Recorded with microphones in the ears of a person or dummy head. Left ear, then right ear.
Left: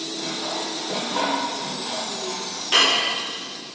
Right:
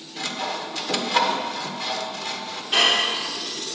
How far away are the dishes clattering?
About 2.5 m.